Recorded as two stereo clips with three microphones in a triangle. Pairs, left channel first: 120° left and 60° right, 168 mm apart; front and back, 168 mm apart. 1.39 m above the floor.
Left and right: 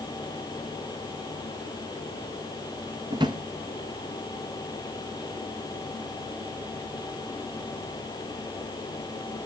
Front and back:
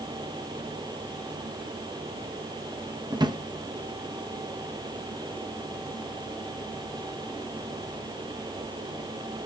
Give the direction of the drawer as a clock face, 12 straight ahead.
4 o'clock.